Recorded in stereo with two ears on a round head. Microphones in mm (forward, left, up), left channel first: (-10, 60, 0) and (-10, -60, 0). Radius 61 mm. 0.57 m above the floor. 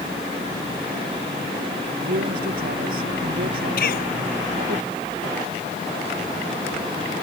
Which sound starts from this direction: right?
A man speaking, at 2.1 s.